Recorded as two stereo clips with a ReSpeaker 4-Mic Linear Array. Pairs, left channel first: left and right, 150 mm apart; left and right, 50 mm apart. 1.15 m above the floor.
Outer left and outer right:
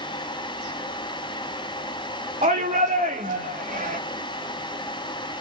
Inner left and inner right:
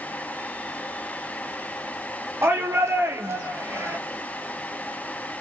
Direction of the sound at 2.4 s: 55° right (ahead or behind).